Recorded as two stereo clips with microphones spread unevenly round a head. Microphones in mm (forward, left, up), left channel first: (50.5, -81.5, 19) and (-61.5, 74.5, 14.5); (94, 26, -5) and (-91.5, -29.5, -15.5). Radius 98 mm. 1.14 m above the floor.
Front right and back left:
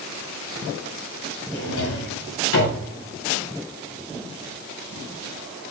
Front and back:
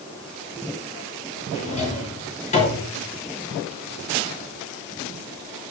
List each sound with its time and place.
1.5 s a drawer: 40° right, 6 m